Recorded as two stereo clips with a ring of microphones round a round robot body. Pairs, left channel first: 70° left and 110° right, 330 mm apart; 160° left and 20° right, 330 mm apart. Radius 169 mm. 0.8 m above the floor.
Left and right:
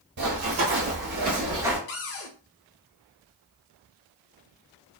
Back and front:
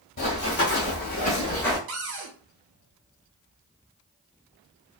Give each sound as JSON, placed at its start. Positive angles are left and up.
{"t": 0.2, "sound": "running footsteps", "azimuth_deg": -155, "distance_m": 1.7}
{"t": 1.9, "sound": "a cupboard door", "azimuth_deg": 25, "distance_m": 0.5}